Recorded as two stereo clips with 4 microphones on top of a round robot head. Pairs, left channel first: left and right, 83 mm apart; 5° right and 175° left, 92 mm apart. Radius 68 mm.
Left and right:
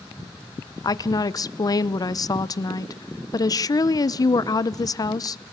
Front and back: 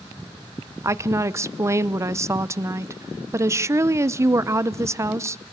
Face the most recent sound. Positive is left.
turn(degrees=120)